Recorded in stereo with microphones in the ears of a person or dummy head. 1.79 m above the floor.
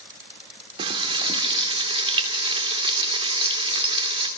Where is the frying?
35° right (ahead or behind), 2.5 m.